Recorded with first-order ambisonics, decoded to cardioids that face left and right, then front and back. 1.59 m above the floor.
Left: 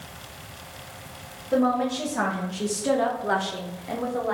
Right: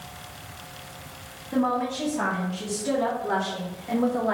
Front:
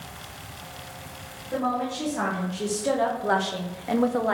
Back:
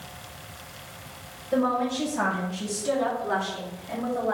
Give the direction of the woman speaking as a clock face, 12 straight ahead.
9 o'clock.